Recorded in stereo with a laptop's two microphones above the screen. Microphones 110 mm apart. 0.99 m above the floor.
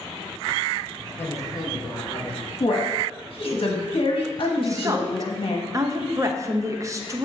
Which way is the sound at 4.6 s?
30° right (ahead or behind).